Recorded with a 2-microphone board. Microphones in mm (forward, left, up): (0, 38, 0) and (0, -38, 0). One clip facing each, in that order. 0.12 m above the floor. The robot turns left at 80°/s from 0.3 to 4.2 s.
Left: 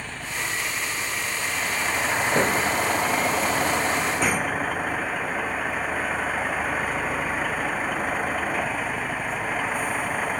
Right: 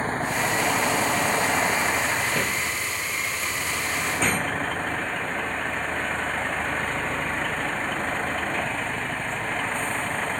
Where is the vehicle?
40° right; by 10.4 s 10° left.